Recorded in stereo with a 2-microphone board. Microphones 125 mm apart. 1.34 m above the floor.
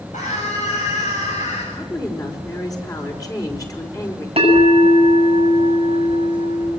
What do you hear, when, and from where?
0.1 s a scream: 85° left, 8.5 m; by 1.6 s 80° left, 7.5 m
1.7 s a woman speaking: 30° left (ahead or behind), 5 m
4.4 s a bell: 50° right (ahead or behind), 6.5 m